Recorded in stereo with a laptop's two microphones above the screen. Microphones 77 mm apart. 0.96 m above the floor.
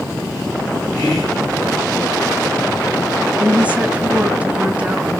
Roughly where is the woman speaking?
Centre.